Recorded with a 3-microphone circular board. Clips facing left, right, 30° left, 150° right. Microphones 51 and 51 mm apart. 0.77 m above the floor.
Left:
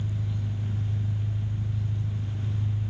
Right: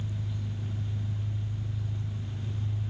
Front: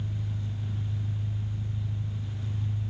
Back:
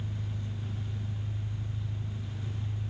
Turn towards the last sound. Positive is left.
turn(degrees=120)